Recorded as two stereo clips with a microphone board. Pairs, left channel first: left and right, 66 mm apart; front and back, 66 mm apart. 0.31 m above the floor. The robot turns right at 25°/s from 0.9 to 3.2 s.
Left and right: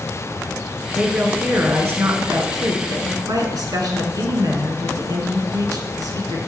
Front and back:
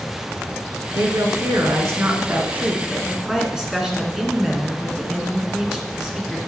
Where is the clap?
I don't hear a clap.